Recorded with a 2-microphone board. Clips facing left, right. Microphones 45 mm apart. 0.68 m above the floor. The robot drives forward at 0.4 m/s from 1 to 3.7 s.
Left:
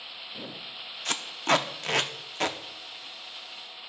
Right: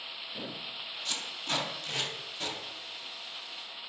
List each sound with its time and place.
1.1 s tape being pulled: 55° left (ahead or behind), 0.7 m